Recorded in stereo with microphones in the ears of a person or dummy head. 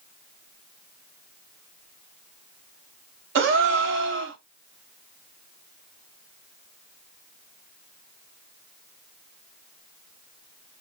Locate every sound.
3.4 s a gasp: 70° right (ahead or behind), 0.7 m